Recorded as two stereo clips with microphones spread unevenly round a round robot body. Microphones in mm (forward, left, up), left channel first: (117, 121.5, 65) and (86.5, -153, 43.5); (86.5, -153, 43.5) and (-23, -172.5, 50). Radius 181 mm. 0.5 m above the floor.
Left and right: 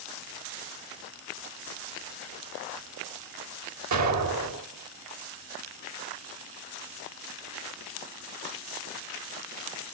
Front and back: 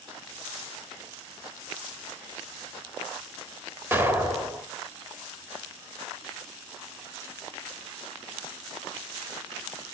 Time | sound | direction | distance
3.9 | an explosion | 100° right | 2 m